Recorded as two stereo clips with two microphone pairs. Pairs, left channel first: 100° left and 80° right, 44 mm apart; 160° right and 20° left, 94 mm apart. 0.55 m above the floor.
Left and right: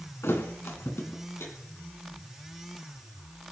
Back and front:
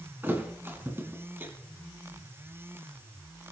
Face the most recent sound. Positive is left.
turn(degrees=90)